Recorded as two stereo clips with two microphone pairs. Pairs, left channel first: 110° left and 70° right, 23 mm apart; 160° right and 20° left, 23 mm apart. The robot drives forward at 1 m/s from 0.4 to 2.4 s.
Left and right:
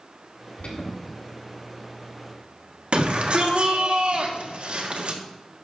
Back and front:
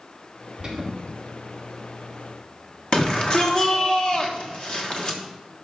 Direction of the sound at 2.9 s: 105° right.